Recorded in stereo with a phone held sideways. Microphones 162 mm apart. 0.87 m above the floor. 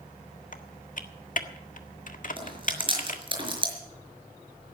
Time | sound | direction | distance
0.5 | typing on a keyboard | 60° left (ahead or behind) | 1.6 m
2.4 | chewing | 35° right (ahead or behind) | 5 m